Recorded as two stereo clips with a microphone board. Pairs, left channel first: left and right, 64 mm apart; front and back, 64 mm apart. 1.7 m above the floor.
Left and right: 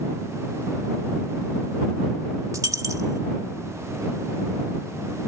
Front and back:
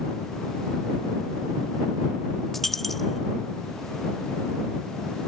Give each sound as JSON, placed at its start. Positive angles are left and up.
{"t": 2.5, "sound": "a dropped coin", "azimuth_deg": -90}